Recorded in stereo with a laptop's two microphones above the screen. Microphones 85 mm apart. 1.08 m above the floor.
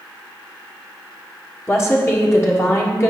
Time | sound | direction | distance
1.7 | a woman speaking | 35° left (ahead or behind) | 1.5 m